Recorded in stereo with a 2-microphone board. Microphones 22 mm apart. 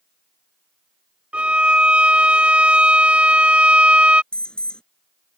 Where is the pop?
I don't hear a pop.